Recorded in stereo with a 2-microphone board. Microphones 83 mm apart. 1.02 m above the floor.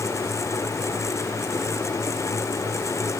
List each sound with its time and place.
Only background noise.